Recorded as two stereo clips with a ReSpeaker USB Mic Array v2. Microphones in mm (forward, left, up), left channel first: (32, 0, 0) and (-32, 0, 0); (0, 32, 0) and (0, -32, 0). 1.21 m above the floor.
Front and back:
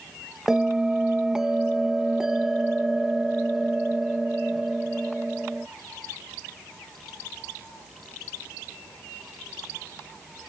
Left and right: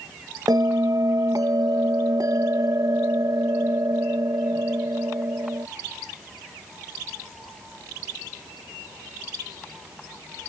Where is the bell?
100° right.